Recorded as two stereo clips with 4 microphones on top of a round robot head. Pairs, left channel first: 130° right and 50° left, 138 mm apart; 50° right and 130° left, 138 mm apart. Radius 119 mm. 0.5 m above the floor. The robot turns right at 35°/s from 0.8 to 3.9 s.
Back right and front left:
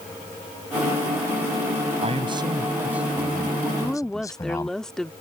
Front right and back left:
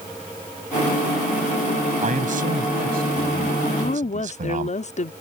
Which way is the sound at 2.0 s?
95° left.